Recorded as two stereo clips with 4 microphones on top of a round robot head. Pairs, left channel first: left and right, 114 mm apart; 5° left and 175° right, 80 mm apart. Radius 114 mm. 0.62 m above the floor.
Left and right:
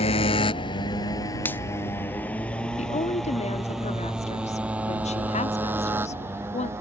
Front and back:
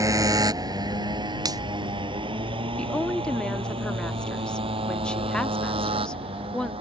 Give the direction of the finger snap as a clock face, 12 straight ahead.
7 o'clock.